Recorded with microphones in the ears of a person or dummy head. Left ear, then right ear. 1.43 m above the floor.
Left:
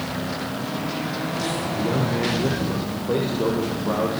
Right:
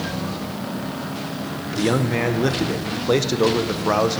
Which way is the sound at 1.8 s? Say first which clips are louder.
Right 6 dB; 70° right (ahead or behind).